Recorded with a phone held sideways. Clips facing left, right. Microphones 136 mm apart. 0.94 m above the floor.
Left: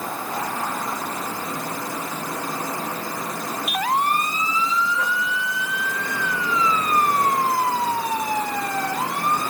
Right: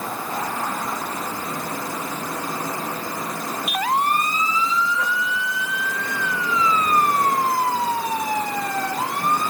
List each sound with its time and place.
Only background noise.